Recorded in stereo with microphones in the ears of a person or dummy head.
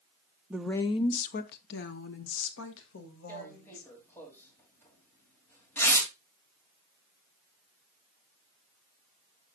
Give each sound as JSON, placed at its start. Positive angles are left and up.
{"t": 0.5, "sound": "a woman speaking", "side_deg": -10, "distance_m": 0.6}
{"t": 3.3, "sound": "tearing paper", "side_deg": 10, "distance_m": 3.0}